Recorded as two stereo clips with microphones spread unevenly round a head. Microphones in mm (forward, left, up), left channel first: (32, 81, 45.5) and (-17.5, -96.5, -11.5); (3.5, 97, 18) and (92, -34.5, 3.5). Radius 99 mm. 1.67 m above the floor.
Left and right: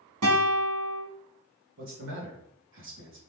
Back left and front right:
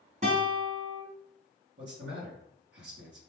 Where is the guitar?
115° right, 3 m.